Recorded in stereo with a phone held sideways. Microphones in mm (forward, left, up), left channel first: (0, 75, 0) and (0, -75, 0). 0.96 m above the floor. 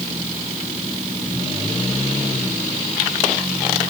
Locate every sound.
Only background noise.